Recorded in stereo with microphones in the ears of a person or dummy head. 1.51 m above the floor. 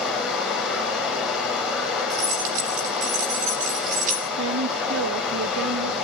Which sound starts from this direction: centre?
Running water, at 0.0 s.